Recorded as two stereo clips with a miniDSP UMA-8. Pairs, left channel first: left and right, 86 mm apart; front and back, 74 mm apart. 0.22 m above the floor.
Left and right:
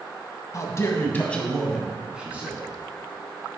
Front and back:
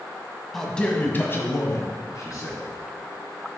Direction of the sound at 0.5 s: 85° left.